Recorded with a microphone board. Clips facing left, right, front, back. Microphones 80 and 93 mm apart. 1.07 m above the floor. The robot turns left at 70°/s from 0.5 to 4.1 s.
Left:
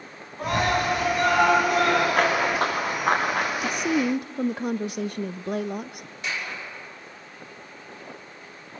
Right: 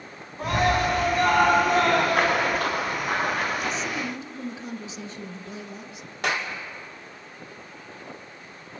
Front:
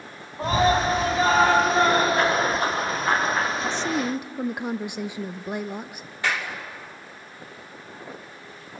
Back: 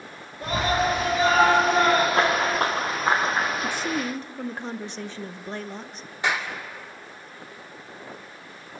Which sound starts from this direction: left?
A woman speaking, at 3.6 s.